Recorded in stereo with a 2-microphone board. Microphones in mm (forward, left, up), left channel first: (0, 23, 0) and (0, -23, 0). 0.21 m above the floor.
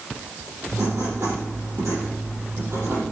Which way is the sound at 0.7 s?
70° right (ahead or behind).